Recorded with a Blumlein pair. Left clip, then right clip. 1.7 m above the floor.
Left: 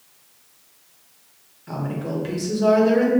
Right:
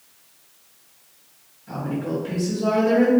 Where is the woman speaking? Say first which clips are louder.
Right 1 dB; 65° left, 0.9 m.